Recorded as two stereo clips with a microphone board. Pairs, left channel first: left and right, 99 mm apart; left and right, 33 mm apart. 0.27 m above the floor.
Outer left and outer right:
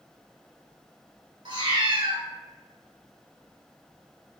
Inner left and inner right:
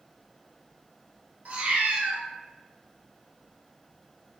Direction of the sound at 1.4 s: 55° right (ahead or behind).